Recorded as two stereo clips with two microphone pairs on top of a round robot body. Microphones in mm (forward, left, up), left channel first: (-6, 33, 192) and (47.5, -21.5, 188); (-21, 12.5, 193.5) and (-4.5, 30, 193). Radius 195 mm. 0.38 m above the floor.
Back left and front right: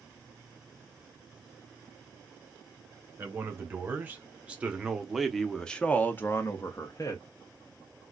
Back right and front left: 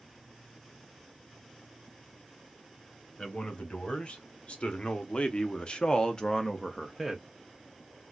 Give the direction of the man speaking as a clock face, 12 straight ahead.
3 o'clock.